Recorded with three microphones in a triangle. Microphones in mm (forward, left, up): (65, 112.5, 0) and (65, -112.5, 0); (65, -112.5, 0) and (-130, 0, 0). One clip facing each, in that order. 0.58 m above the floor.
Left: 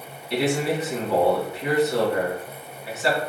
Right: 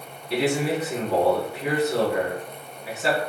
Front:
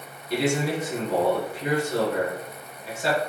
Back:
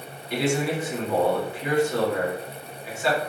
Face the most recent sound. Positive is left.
turn(degrees=-70)